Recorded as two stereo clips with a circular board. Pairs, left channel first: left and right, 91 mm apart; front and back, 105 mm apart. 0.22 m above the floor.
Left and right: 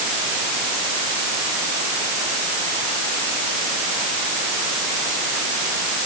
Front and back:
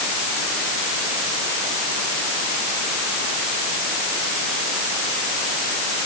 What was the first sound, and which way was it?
Only background noise.